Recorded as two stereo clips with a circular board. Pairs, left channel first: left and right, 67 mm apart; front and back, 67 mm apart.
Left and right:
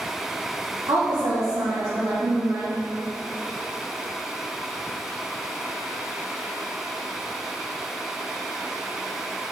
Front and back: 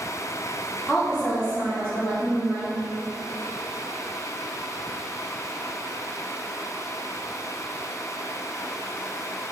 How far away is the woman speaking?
About 1.0 m.